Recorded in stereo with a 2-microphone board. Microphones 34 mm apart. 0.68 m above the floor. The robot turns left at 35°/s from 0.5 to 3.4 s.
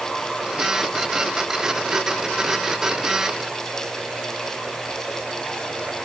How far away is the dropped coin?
No dropped coin in this recording.